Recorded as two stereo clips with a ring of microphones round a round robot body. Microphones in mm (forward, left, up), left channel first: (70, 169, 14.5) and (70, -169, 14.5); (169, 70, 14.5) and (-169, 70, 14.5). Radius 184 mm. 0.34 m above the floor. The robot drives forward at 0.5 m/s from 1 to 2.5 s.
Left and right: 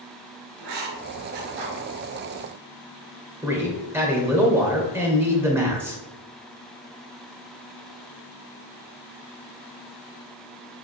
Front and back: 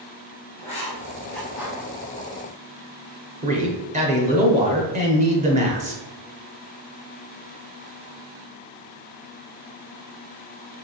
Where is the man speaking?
165° right, 0.8 m.